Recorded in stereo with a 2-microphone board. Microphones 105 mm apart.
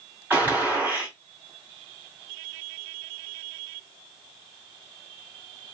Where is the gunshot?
20° right (ahead or behind), 2.5 m.